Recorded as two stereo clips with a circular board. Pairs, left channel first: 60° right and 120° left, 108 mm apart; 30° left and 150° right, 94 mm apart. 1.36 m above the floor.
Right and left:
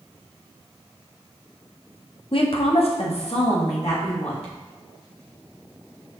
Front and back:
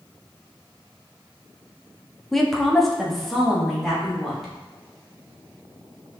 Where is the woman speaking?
55° right, 0.5 m; by 4.5 s 60° right, 1.8 m.